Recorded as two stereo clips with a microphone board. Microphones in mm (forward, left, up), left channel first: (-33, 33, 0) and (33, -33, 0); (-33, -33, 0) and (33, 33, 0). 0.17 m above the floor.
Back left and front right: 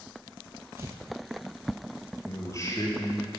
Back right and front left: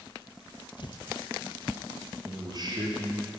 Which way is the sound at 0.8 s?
105° right.